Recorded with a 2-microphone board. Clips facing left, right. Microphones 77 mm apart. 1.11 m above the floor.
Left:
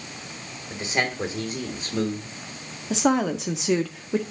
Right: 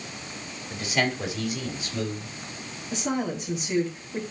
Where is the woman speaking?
90° left, 1.6 m.